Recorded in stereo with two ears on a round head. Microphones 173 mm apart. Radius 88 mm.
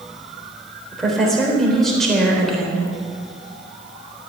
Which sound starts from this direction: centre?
A woman speaking, at 0.9 s.